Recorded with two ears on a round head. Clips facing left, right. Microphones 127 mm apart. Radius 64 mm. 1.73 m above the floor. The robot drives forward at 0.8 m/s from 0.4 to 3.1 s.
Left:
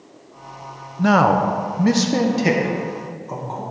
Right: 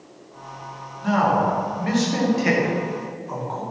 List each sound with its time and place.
1.0 s a man speaking: 70° left (ahead or behind), 0.8 m; by 3.6 s 25° left (ahead or behind), 1.8 m